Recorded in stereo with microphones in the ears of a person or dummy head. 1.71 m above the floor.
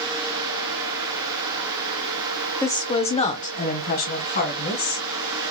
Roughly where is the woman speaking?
Centre.